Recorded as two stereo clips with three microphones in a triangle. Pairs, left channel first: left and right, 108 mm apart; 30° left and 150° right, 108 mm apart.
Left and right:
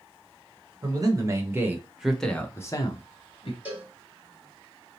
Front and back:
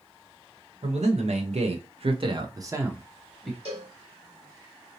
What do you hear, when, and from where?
0.8 s a man speaking: 145° right, 1.1 m; by 3.5 s 120° left, 0.9 m
3.6 s a cowbell: 165° right, 1.3 m